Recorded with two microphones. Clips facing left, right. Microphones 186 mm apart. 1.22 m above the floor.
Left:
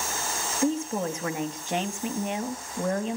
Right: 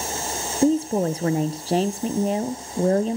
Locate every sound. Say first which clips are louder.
0.6 s a woman speaking: right 7 dB; 35° right (ahead or behind), 0.6 m